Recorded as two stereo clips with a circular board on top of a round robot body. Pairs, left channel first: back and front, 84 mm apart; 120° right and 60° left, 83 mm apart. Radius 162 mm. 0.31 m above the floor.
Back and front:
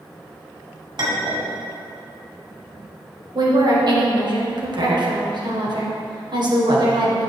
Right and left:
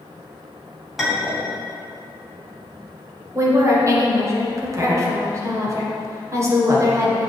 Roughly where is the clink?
Ahead right.